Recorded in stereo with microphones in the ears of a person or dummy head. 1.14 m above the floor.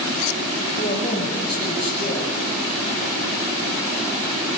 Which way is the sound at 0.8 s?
40° left (ahead or behind).